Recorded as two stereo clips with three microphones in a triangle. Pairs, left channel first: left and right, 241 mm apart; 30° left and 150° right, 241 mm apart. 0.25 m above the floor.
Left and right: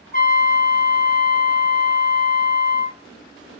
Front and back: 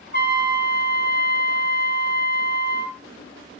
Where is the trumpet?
55° left, 1.0 m.